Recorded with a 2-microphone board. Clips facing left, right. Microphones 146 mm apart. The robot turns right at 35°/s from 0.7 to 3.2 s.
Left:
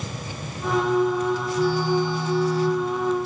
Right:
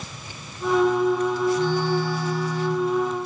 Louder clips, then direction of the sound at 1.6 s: Left 1 dB; 5° left.